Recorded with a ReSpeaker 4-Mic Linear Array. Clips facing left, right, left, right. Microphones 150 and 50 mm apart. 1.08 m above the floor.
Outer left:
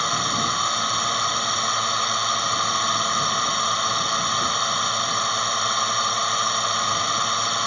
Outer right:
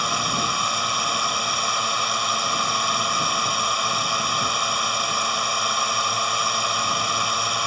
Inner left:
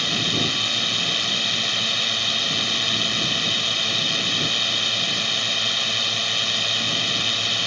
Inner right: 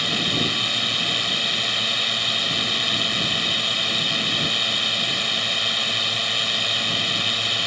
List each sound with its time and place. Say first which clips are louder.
0.0 s a drone: even, even; 5° right (ahead or behind)